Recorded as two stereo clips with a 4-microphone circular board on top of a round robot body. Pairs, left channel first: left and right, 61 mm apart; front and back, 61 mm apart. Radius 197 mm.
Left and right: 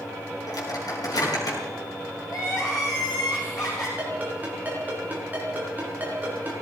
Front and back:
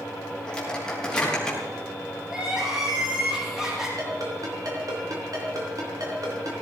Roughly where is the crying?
Left.